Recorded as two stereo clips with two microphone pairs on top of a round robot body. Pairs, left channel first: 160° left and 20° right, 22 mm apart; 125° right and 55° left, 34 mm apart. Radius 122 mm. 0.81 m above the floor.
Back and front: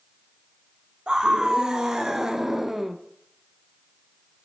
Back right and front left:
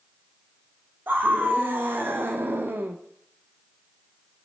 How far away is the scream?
About 2 m.